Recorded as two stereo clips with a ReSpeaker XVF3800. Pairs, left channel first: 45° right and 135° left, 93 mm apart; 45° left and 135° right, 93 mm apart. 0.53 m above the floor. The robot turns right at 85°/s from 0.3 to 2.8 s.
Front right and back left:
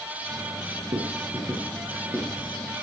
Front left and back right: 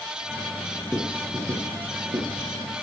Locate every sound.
0.9 s writing: 140° left, 7 m; by 2.6 s 75° right, 7 m